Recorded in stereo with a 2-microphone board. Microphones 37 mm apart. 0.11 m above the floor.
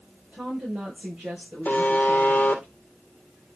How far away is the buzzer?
About 1.7 m.